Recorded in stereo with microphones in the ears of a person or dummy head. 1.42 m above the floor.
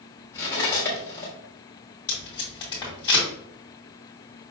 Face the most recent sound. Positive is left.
turn(degrees=15)  # may be behind; listen again after turning